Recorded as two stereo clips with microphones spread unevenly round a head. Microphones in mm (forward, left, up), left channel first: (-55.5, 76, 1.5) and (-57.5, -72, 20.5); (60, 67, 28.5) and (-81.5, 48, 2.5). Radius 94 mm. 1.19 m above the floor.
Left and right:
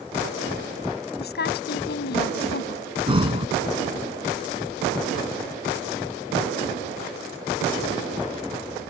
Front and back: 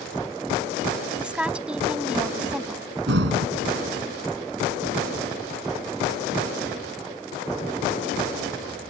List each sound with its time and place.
1.2 s a woman speaking: 105° left
3.1 s breathing: 145° right